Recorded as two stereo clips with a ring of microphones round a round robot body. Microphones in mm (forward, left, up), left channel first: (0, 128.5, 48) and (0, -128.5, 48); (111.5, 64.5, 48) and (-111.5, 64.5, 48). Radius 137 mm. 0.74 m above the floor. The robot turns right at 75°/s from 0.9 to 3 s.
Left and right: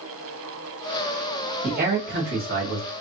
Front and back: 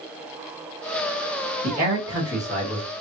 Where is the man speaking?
150° right, 1.3 m; by 2.9 s 55° right, 1.3 m.